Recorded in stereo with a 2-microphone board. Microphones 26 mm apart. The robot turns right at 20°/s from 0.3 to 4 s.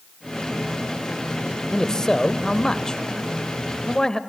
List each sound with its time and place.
1.7 s a man speaking: 25° left (ahead or behind), 0.9 m